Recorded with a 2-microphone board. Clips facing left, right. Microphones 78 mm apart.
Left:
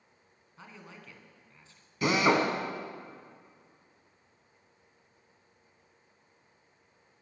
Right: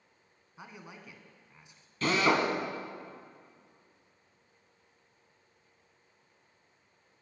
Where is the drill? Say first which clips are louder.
Left 2 dB; 15° left (ahead or behind), 1.2 m.